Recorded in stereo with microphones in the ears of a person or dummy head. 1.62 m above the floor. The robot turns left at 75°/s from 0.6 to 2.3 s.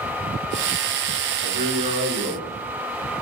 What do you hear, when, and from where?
1.4 s a man speaking: 110° right, 2 m; by 2.4 s 175° right, 2 m